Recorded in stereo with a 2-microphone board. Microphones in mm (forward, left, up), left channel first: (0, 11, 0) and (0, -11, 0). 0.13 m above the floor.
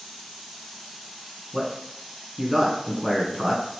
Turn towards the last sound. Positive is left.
turn(degrees=-5)  # may be behind; listen again after turning